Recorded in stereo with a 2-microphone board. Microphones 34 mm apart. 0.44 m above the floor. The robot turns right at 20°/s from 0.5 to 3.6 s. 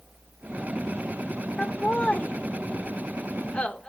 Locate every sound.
1.6 s laughter: 40° left (ahead or behind), 1.4 m; by 3.9 s 25° left (ahead or behind), 1.4 m